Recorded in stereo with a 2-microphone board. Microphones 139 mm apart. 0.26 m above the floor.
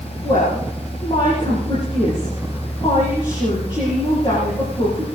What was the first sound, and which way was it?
A woman speaking, 40° left (ahead or behind).